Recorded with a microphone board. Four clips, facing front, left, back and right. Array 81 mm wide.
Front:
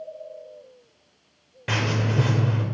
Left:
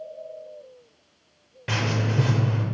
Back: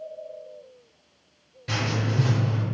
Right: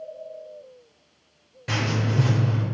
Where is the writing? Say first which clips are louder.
Even, front 2 dB; 15° left, 1.3 m.